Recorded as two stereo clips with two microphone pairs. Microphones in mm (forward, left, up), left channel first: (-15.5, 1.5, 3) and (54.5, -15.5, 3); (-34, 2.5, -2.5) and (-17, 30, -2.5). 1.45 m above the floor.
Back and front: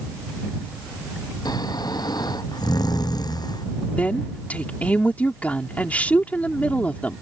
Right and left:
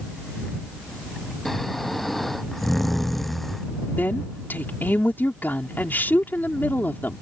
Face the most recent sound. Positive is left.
turn(degrees=-125)